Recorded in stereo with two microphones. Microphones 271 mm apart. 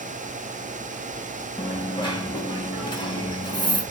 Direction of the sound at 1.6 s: 15° left (ahead or behind).